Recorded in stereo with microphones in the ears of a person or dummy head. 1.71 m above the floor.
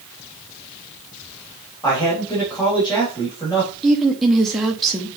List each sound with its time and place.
1.8 s a man speaking: 20° left (ahead or behind), 3.5 m
3.8 s a woman speaking: centre (ahead or behind), 1.0 m